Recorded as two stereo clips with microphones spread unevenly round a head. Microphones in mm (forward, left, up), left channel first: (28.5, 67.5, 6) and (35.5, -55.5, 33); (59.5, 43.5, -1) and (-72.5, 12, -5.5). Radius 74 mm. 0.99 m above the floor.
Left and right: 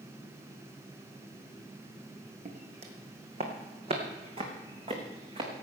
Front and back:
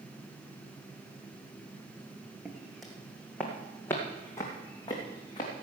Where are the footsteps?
80° right, 2.0 m; by 5.5 s 45° right, 3 m.